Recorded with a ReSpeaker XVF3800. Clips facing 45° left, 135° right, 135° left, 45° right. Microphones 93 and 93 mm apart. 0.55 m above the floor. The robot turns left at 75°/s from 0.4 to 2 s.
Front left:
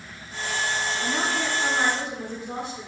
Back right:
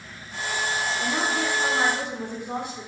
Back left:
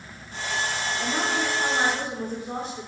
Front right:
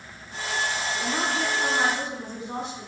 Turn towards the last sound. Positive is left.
turn(degrees=160)